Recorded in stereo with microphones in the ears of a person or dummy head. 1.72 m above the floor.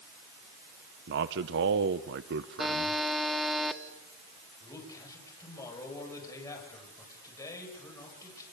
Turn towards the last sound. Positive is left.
turn(degrees=25)  # may be behind; listen again after turning